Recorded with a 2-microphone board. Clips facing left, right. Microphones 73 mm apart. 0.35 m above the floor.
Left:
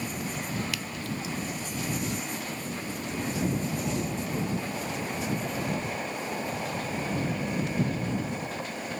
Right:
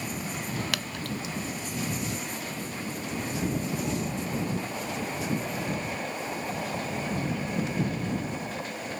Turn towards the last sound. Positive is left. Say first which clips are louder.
# right 1 dB
turn(degrees=-75)  # may be behind; listen again after turning